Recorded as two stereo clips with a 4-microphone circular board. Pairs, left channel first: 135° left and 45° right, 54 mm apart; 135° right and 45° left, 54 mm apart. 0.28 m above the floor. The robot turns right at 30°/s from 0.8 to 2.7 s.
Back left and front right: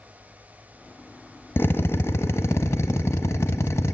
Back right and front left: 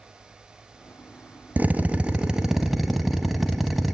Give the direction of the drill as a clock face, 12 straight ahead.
9 o'clock.